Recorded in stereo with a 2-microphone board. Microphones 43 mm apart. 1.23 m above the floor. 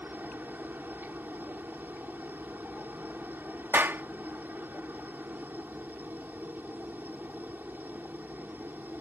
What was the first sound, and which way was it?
A helicopter, 50° right (ahead or behind).